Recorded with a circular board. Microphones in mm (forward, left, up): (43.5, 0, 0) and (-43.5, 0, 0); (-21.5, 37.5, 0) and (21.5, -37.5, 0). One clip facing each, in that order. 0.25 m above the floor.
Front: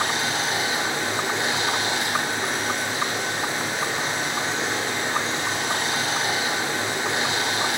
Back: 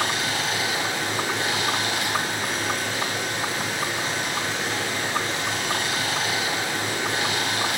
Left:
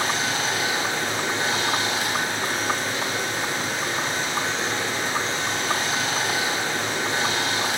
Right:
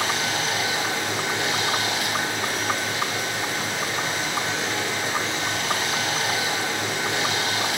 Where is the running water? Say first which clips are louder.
Front 1 dB, even; 65° left, 1.8 m.